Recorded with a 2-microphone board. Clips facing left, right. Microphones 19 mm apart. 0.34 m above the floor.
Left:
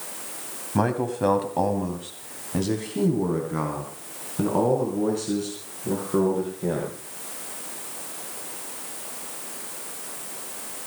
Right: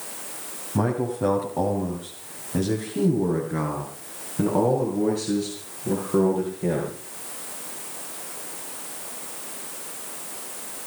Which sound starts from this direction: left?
A man speaking, at 0.8 s.